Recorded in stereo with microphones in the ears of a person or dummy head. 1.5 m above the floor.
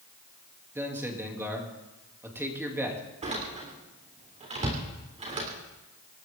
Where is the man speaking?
10° right (ahead or behind), 3 m.